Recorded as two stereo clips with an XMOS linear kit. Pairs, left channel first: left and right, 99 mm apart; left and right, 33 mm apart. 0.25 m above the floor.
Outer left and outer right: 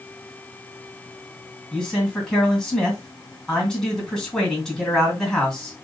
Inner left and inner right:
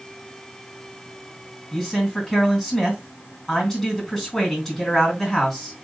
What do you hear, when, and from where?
1.7 s a man speaking: 5° left (ahead or behind), 2.5 m